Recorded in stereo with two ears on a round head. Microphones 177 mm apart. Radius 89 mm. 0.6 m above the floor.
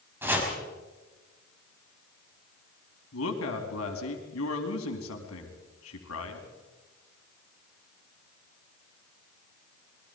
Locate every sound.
0.2 s chopping: 10° right (ahead or behind), 5 m
3.1 s a woman speaking: 80° left, 4.5 m